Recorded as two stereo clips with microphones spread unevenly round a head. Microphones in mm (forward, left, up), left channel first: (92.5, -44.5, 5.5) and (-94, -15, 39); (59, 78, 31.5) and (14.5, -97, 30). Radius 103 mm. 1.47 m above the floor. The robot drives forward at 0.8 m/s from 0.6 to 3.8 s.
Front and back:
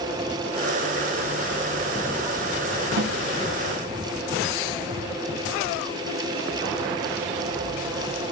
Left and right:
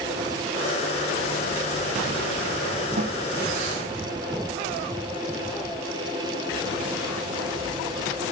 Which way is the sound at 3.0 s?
155° right.